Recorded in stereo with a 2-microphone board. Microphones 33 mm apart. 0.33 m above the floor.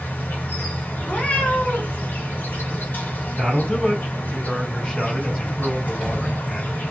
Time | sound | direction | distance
0.0 | an insect | 70° left (ahead or behind) | 1.1 m
1.1 | a cat meowing | 60° left (ahead or behind) | 1.3 m
3.4 | a man speaking | 30° left (ahead or behind) | 1.8 m